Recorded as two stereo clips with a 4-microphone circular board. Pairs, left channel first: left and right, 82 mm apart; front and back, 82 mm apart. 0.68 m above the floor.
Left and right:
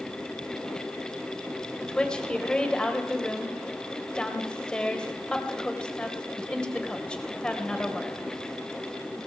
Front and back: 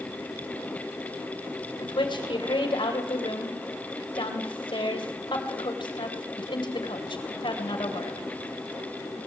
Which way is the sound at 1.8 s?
10° left.